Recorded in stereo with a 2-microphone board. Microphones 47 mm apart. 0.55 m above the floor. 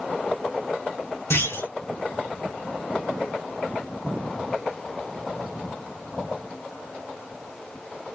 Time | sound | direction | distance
1.3 | a clunk | 75° left (ahead or behind) | 3.5 m